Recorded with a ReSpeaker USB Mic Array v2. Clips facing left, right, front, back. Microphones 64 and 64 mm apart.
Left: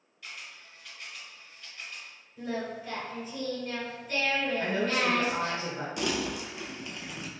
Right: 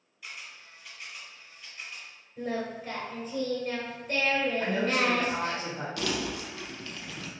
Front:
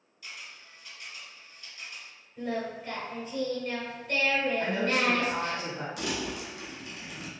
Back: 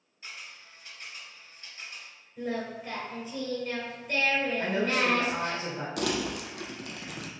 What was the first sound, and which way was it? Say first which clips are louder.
A camera shutter: right 1 dB, even; 170° right.